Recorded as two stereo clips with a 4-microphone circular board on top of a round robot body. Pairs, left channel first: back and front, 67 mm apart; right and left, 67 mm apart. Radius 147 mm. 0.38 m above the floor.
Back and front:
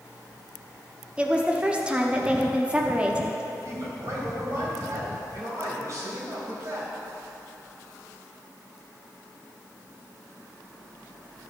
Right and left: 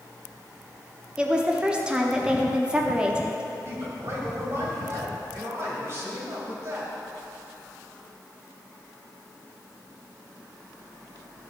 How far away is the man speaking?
About 2.5 m.